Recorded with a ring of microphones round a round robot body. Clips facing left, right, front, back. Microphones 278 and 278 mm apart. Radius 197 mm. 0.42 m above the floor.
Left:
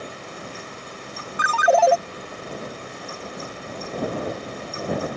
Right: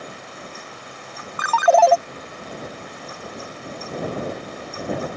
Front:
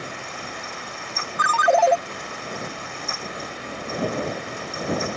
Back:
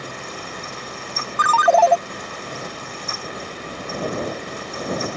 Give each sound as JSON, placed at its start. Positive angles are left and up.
{"t": 1.4, "sound": "a ringtone", "azimuth_deg": -130}